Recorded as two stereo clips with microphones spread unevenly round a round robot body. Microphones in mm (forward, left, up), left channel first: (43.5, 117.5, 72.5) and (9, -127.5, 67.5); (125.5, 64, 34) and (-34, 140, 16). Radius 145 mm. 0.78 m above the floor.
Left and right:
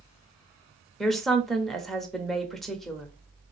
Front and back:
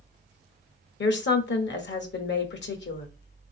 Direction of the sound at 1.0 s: 10° right.